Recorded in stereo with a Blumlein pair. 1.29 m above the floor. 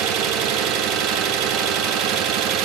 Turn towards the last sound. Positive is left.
turn(degrees=-35)